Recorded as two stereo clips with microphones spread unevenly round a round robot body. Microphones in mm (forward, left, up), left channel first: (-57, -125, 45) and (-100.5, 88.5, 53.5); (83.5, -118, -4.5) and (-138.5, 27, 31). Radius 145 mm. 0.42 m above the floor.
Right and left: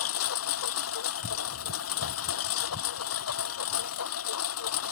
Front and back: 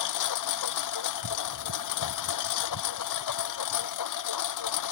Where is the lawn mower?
40° right.